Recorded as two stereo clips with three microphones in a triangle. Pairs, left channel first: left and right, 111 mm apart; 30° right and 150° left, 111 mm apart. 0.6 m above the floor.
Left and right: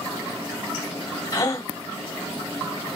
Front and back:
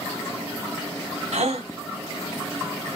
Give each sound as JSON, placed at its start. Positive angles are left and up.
{"t": 1.3, "sound": "a gasp", "azimuth_deg": 145, "distance_m": 1.1}